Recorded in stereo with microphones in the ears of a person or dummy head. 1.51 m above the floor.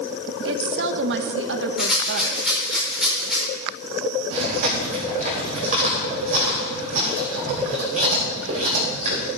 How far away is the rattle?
About 5.5 m.